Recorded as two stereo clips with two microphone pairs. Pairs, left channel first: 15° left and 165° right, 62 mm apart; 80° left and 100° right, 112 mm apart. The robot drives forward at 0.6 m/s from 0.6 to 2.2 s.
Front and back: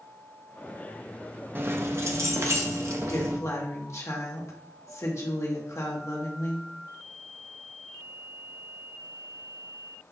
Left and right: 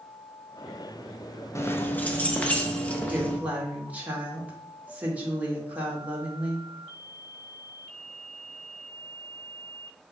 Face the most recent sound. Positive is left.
turn(degrees=-25)